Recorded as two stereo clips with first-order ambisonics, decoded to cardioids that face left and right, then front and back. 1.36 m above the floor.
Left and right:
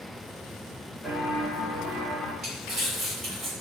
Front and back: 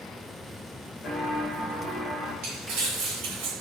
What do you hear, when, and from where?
1.0 s footsteps: 30° left, 1.4 m; by 2.3 s 90° left, 2 m
2.4 s crumpling: 160° right, 2.5 m